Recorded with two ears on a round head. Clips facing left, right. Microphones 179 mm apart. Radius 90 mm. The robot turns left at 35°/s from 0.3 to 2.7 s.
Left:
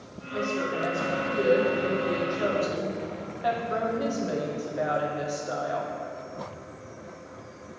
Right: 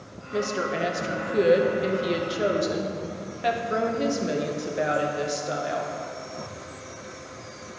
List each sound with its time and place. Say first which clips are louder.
0.3 s a woman speaking: right 2 dB; 65° right, 0.8 m; by 5.9 s 150° right, 0.8 m